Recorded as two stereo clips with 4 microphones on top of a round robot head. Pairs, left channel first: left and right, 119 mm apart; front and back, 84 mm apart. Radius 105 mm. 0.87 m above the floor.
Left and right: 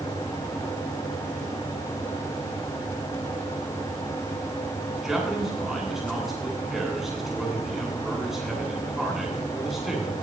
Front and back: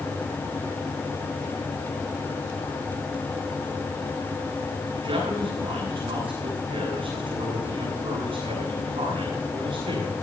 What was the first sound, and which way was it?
A man speaking, straight behind.